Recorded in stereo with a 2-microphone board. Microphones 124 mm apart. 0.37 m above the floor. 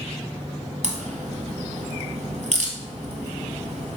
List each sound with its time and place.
0.8 s a crack: 65° right (ahead or behind), 1.7 m